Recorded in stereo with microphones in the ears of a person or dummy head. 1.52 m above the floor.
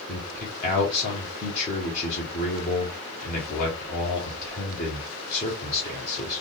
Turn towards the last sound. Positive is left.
turn(degrees=45)  # may be behind; listen again after turning